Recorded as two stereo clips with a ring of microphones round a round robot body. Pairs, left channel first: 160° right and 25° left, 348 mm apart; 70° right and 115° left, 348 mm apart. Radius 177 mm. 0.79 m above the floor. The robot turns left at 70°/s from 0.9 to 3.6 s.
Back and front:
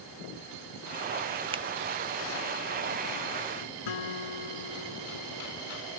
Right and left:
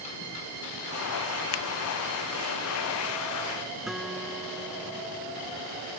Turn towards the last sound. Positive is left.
turn(degrees=-160)